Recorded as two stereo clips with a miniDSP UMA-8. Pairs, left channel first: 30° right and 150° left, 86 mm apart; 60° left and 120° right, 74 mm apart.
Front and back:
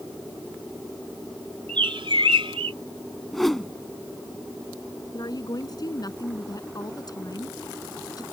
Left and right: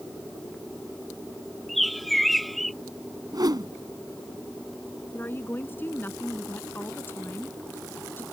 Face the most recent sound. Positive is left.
turn(degrees=5)